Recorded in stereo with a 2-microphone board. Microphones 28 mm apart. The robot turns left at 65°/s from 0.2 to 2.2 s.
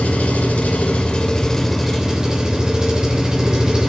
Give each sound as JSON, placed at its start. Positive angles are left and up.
{"t": 0.0, "sound": "an engine running", "azimuth_deg": 100, "distance_m": 3.0}